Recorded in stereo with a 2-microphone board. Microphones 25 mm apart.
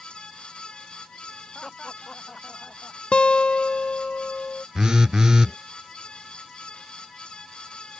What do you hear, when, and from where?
1.6 s laughter: 30° left (ahead or behind)
3.1 s a guitar: 60° left (ahead or behind)
4.8 s a phone buzzing: 30° right (ahead or behind)